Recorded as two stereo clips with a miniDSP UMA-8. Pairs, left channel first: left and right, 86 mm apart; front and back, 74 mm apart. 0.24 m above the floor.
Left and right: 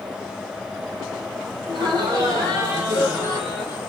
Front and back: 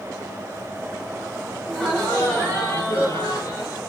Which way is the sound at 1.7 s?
80° right.